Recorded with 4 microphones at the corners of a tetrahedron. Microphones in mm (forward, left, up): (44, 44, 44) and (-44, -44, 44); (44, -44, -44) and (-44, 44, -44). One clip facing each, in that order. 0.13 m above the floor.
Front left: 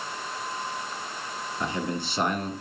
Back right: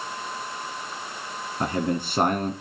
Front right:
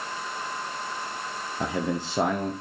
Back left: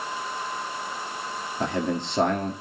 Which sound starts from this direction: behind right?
A man speaking, at 1.6 s.